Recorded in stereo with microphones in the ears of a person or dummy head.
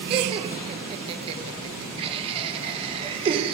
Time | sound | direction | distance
0.1 | laughter | 35° right (ahead or behind) | 1.5 m